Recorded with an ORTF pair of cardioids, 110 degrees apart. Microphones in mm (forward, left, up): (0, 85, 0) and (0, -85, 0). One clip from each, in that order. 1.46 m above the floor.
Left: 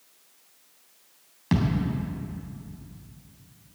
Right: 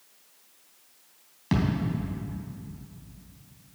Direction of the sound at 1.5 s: 10° left.